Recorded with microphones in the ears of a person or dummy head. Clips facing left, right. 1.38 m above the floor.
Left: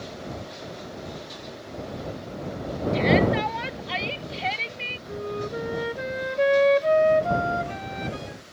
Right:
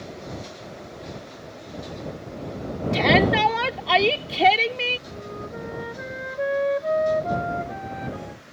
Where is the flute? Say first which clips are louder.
Left 5 dB; 40° left (ahead or behind).